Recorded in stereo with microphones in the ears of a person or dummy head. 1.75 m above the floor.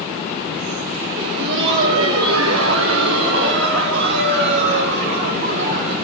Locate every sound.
1.2 s laughter: 60° right (ahead or behind), 1.2 m; by 5.9 s 50° right (ahead or behind), 3 m